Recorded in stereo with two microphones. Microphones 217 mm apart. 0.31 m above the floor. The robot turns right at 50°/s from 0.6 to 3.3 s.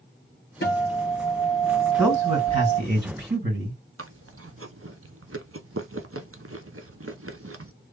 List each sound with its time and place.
0.6 s a guitar: 115° left, 2 m; by 2.8 s 140° right, 2 m
2.0 s a man speaking: straight behind, 2.5 m; by 3.8 s 115° right, 2.5 m
4.0 s chewing: 85° right, 0.6 m